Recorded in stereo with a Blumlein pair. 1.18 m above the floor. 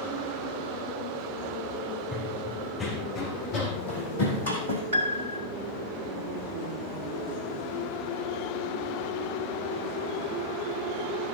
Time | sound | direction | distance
2.1 | running footsteps | 15° left | 4 m
4.9 | a piano | 65° right | 1.6 m